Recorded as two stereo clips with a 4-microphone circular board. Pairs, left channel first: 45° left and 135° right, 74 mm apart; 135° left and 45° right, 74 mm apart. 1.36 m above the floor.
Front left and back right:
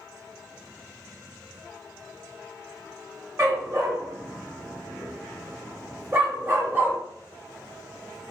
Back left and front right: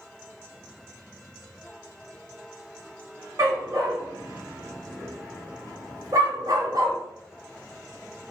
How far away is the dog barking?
About 3.5 m.